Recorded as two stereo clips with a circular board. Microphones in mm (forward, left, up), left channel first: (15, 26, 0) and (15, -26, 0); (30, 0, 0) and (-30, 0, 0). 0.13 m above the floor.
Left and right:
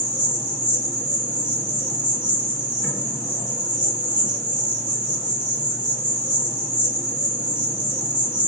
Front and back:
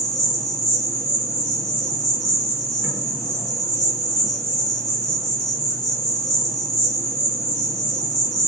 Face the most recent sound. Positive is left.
turn(degrees=-85)